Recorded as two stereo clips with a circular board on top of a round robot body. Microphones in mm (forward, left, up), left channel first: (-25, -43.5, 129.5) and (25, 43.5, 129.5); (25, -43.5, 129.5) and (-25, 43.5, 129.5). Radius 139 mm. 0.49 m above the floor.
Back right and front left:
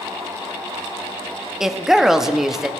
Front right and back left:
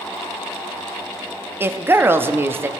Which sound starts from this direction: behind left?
A woman speaking, at 1.6 s.